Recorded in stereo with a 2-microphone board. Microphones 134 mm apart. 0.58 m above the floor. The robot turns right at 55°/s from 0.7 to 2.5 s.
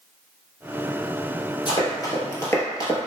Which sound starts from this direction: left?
Running footsteps, at 1.7 s.